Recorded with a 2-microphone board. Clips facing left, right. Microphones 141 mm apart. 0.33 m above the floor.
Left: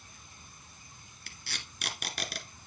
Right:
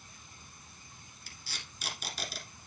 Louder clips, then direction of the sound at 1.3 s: Left 3 dB; 65° left (ahead or behind).